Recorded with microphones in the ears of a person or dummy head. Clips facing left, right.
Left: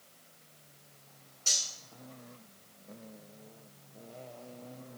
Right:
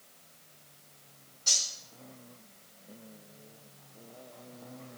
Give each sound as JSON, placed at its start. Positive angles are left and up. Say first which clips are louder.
{"t": 1.5, "sound": "cutlery clinking", "louder": "even", "side_deg": 35, "distance_m": 3.0}